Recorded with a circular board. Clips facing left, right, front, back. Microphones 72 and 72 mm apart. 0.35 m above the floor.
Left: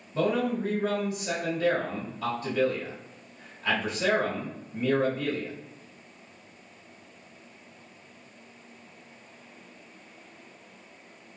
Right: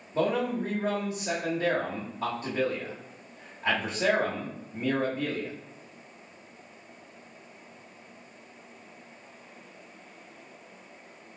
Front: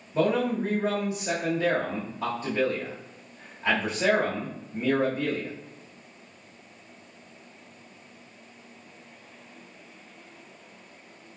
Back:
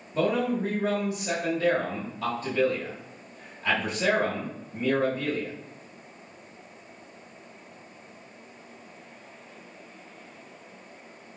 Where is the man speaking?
50° right, 1.1 m.